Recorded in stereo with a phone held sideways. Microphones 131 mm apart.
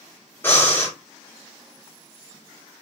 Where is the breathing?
15° left (ahead or behind), 2 m.